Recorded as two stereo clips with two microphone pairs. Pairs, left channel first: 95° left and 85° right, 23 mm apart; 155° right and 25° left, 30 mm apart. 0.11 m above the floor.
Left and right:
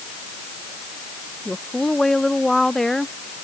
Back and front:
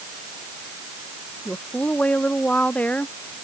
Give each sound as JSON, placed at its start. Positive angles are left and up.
{"t": 1.4, "sound": "a woman speaking", "azimuth_deg": 165}